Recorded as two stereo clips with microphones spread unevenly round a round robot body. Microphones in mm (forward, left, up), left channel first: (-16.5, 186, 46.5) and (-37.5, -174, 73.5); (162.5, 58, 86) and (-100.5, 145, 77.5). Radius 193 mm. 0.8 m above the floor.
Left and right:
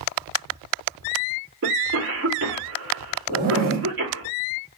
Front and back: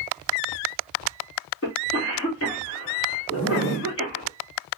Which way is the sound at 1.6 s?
45° right.